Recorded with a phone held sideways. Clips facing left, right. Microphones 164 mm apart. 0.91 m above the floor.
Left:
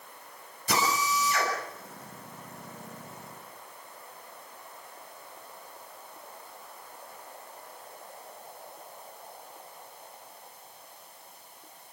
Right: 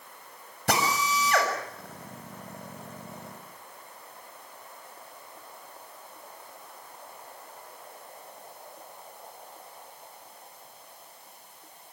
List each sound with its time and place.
0.7 s a drill: 70° right (ahead or behind), 7 m